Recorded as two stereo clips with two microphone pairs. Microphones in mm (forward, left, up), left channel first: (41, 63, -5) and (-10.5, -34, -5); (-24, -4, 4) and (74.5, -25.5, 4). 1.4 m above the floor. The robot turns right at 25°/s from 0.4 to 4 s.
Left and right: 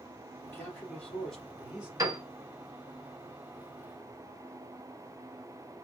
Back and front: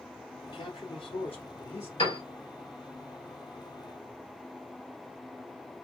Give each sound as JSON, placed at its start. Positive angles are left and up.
{"t": 0.4, "sound": "a man speaking", "azimuth_deg": 125, "distance_m": 2.5}
{"t": 2.0, "sound": "a piano", "azimuth_deg": -175, "distance_m": 3.0}